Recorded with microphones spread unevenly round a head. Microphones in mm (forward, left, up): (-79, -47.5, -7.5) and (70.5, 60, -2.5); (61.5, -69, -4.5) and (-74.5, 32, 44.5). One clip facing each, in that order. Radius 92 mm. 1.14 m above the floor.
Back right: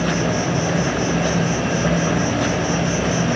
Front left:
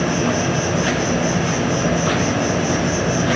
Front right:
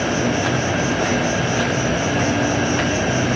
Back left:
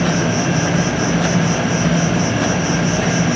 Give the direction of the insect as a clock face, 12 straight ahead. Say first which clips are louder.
Front left 1 dB, back left 2 dB; 8 o'clock.